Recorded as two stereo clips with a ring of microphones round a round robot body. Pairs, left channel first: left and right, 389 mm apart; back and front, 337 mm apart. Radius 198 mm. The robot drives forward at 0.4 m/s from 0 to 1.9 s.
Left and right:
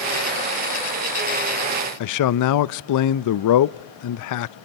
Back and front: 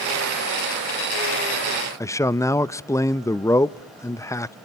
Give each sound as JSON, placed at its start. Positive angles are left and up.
{"t": 2.0, "sound": "a man speaking", "azimuth_deg": 100, "distance_m": 0.6}